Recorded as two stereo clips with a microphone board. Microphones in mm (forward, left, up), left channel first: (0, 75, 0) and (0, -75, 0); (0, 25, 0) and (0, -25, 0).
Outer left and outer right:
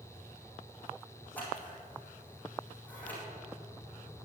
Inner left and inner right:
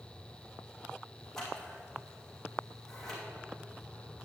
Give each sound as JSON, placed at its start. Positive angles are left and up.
{"t": 1.4, "sound": "scissors", "side_deg": 10, "distance_m": 3.5}